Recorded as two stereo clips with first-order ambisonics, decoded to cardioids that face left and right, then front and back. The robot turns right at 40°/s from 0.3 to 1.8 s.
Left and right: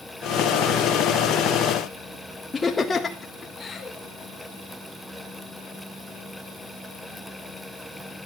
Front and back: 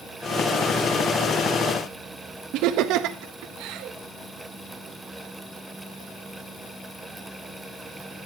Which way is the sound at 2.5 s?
165° left.